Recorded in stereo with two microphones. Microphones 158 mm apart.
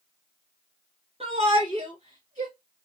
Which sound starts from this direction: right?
A shout, at 1.2 s.